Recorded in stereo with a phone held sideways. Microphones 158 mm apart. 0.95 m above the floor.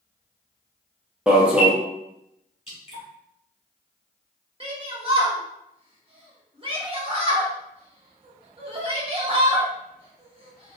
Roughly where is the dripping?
Left.